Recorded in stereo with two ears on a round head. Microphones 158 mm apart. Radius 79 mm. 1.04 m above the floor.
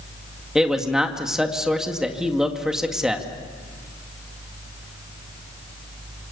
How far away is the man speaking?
About 2 m.